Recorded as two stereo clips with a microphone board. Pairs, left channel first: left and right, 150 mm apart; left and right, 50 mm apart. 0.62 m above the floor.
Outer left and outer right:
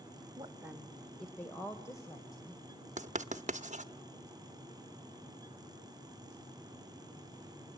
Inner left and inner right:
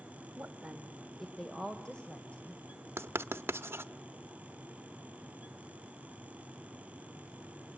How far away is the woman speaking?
About 1.5 m.